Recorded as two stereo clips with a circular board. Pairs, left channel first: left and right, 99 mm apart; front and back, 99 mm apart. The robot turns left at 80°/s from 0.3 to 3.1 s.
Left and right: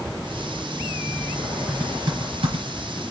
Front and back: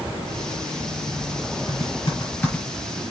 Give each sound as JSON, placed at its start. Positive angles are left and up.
{"t": 1.7, "sound": "typing on a keyboard", "azimuth_deg": -10, "distance_m": 4.5}